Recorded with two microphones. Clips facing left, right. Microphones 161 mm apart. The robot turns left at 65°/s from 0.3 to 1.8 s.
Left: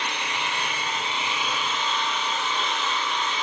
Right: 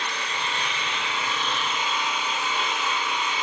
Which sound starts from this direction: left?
An engine running, at 0.0 s.